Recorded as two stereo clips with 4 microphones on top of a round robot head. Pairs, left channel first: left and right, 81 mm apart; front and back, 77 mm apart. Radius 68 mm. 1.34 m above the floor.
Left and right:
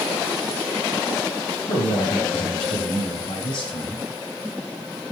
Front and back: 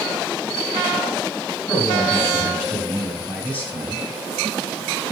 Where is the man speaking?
95° left, 8 m; by 4.0 s 75° left, 6.5 m.